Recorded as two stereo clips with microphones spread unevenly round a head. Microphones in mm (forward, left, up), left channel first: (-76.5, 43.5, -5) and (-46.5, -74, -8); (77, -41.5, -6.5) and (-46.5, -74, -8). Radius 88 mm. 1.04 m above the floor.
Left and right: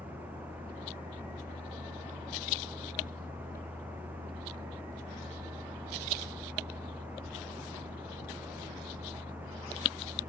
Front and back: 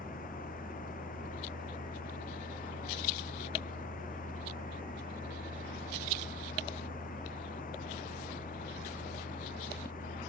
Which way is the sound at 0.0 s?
5° left.